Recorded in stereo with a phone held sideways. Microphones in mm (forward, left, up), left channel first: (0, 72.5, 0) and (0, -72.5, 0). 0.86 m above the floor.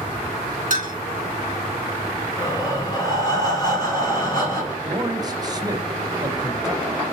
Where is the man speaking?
25° right (ahead or behind), 0.6 m.